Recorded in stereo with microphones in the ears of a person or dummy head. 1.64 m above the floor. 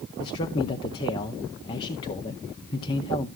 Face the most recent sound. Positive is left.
turn(degrees=20)  # may be behind; listen again after turning